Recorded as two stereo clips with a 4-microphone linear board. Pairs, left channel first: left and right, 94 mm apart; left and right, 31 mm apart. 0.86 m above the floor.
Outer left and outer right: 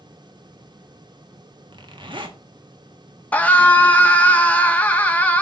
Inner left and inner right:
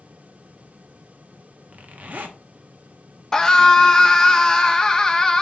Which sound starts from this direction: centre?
A scream, at 3.3 s.